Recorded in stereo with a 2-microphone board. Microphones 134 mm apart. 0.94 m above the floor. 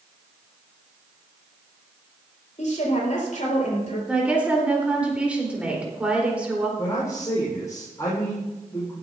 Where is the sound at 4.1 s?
10° right (ahead or behind), 3.5 m.